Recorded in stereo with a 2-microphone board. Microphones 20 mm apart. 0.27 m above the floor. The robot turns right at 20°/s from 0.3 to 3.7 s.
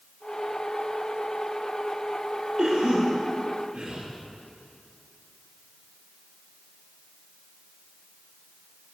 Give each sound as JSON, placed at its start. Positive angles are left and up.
{"t": 2.6, "sound": "a cough", "side_deg": -35, "distance_m": 8.0}